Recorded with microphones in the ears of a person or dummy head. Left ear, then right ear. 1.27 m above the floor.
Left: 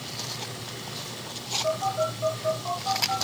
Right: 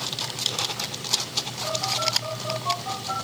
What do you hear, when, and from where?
1.6 s a phone buzzing: 15° left (ahead or behind), 4.5 m